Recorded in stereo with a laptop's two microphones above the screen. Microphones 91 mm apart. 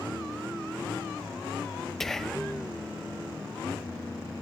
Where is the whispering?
5° left (ahead or behind), 0.6 m.